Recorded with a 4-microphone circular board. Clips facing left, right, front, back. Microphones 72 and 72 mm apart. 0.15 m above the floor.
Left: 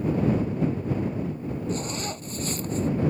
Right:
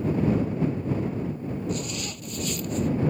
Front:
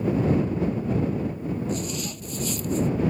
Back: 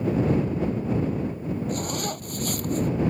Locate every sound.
1.7 s a zipper: 145° left